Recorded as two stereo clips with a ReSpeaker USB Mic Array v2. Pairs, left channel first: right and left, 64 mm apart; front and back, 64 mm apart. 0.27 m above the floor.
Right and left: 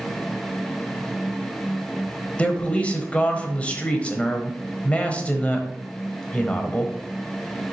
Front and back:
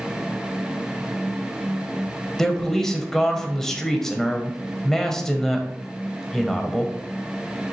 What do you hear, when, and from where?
2.4 s a man speaking: 70° right, 1.2 m